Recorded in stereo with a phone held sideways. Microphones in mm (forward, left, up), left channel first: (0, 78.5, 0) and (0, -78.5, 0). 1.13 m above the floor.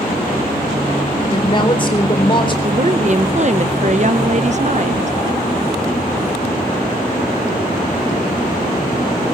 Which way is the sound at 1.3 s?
30° left (ahead or behind).